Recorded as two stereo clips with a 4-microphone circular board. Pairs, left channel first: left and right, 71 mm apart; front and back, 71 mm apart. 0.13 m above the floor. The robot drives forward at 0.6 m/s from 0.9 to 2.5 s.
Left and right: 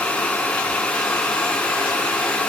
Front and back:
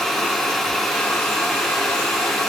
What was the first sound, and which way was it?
Only background noise.